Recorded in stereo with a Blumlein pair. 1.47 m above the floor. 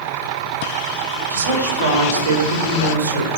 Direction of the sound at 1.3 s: 60° right.